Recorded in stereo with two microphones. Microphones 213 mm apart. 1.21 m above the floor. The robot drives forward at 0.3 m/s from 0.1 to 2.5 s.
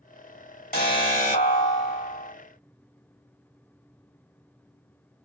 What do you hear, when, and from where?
0.7 s an alarm: 40° left (ahead or behind), 1.5 m; by 2.3 s 30° left (ahead or behind), 1.8 m